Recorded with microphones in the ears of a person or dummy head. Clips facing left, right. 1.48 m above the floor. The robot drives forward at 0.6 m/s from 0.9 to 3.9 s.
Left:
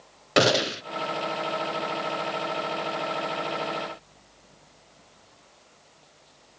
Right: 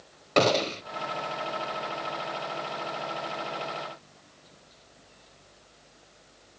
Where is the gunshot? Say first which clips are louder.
Left 1 dB; 10° left (ahead or behind), 0.9 m.